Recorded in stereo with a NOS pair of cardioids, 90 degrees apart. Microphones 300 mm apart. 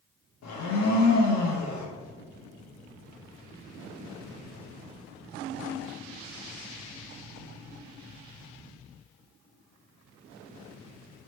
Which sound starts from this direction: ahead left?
A blender, at 0.4 s.